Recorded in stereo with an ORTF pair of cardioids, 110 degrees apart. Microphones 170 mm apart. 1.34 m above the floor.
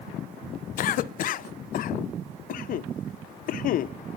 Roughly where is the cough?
Ahead left.